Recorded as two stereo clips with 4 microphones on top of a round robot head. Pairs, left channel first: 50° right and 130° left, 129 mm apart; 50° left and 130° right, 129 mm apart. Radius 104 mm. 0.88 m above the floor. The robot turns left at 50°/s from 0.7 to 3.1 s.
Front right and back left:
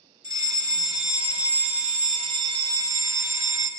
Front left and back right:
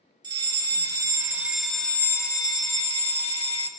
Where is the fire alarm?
175° right, 1.9 m; by 3.7 s 65° left, 1.9 m.